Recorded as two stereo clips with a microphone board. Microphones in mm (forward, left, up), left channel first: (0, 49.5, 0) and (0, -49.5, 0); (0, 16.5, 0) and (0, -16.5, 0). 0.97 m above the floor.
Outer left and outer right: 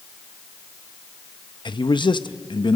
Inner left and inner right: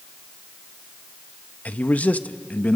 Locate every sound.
1.6 s a man speaking: 55° left (ahead or behind), 0.7 m